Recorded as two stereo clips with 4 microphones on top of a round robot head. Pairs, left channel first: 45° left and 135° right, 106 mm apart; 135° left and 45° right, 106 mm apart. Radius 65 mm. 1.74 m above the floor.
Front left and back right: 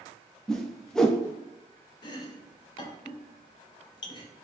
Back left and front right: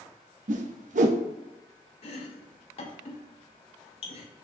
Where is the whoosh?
40° right, 0.5 m.